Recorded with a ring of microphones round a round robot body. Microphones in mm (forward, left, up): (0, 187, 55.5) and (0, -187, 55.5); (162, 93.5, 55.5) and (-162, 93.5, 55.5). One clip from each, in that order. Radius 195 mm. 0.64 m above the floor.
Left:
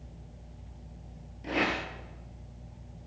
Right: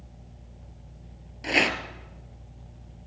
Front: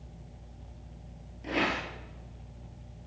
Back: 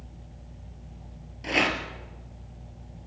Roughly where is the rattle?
Behind right.